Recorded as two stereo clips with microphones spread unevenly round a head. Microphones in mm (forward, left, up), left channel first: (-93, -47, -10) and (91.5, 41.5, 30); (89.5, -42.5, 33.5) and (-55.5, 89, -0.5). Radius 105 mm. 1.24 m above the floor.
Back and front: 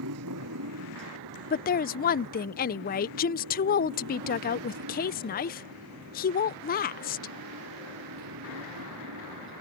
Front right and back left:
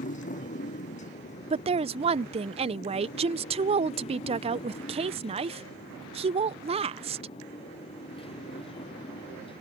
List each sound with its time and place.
0.0 s a motorcycle: 10° left; by 9.6 s 20° left
1.5 s a woman speaking: 175° right